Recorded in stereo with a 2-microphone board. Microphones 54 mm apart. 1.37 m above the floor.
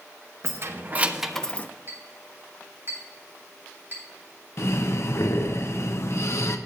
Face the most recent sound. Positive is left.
turn(degrees=55)  # may be behind; listen again after turning